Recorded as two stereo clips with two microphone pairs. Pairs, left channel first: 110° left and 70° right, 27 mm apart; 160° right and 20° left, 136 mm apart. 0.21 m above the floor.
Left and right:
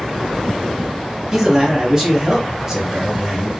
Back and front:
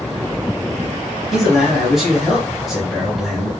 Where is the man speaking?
65° right, 1.1 m.